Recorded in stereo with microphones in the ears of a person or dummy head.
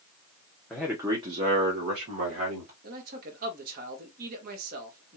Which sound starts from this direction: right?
A man speaking, at 2.8 s.